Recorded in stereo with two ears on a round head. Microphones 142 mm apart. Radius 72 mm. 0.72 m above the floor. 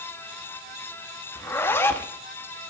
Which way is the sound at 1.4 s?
15° left (ahead or behind).